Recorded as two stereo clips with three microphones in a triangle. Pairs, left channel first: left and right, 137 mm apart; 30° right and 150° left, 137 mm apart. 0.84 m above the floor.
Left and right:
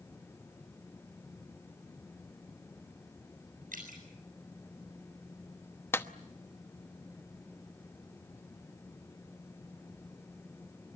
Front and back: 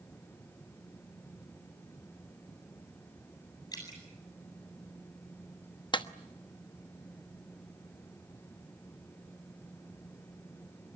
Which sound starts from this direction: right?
Dripping, at 3.7 s.